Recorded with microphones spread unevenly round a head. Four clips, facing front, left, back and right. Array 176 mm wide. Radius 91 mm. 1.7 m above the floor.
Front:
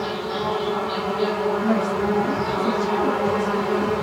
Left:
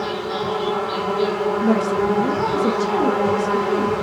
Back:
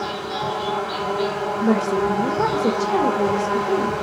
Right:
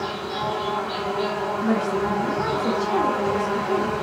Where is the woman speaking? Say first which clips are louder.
Left 3 dB, back 2 dB; 140° left, 0.8 m.